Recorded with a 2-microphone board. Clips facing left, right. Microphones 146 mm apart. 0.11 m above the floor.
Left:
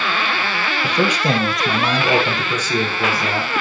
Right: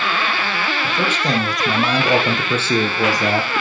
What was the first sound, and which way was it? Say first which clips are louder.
A man speaking: left 4 dB; 20° left (ahead or behind).